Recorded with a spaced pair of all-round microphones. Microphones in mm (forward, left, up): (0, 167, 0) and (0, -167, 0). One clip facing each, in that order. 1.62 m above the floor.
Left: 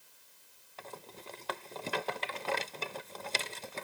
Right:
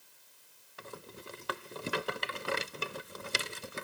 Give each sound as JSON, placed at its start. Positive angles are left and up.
{"t": 0.8, "sound": "a rattle", "side_deg": -20}